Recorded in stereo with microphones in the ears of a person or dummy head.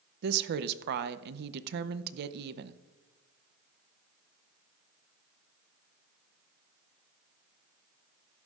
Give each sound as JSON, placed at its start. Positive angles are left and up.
{"t": 0.2, "sound": "a woman speaking", "side_deg": -55, "distance_m": 0.6}